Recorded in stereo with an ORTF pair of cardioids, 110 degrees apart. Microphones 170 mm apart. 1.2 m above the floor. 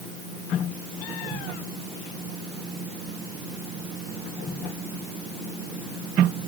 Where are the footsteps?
No footsteps in this recording.